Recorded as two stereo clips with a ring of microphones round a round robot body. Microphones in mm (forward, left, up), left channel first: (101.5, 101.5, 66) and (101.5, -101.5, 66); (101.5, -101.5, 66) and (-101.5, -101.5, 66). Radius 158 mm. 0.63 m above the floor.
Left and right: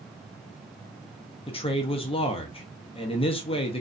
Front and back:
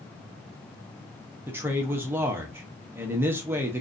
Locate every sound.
1.5 s a man speaking: 110° left, 0.6 m